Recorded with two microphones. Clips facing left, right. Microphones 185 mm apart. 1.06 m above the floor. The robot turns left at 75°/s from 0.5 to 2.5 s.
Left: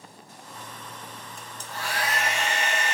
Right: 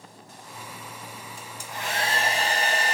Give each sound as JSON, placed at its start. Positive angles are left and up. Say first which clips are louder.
{"t": 1.4, "sound": "a hair dryer", "louder": "even", "azimuth_deg": 0, "distance_m": 0.8}